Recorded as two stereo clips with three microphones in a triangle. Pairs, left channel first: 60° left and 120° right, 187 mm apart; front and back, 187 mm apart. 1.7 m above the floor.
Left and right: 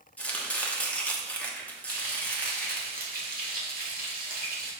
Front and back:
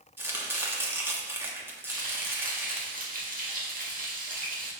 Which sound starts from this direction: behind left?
Chopping, at 0.2 s.